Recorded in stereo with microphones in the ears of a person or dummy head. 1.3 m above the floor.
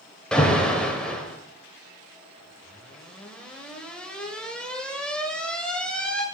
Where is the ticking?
No ticking in this recording.